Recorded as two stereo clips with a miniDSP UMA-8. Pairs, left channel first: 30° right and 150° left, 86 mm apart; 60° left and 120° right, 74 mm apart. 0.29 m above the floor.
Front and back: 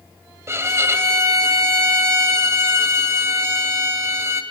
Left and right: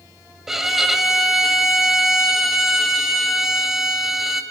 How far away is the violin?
About 1.5 m.